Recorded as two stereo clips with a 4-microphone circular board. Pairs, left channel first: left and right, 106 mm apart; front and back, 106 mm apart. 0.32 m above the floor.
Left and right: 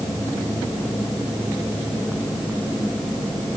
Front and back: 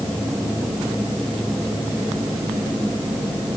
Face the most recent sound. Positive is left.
No sound to turn to.